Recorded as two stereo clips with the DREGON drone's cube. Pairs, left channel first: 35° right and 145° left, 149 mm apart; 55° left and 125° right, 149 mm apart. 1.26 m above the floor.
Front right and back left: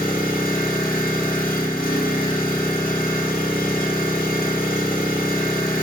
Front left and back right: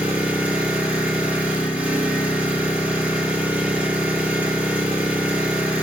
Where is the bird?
I don't hear a bird.